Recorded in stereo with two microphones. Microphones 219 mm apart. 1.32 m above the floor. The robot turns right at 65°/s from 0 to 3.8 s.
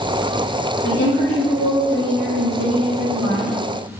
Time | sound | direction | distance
0.8 | a woman speaking | 140° left | 1.8 m